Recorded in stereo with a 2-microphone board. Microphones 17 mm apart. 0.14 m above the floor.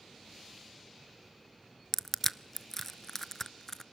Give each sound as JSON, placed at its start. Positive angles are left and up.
{"t": 1.9, "sound": "crushing", "side_deg": 15, "distance_m": 0.6}